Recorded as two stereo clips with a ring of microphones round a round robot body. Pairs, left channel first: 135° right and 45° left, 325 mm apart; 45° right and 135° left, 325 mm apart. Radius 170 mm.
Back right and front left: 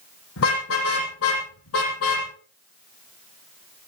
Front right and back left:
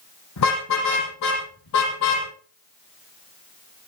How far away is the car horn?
About 9 m.